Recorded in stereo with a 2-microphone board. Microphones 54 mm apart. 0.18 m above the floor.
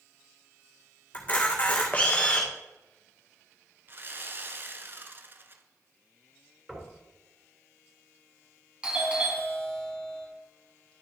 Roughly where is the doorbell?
Centre.